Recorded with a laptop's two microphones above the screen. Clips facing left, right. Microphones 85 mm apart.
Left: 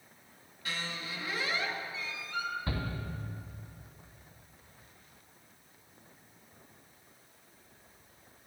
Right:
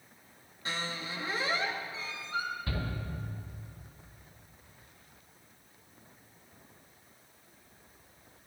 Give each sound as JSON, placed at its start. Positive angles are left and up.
{"t": 0.7, "sound": "a squeak", "side_deg": -30, "distance_m": 0.8}
{"t": 2.7, "sound": "a shout", "side_deg": 35, "distance_m": 2.5}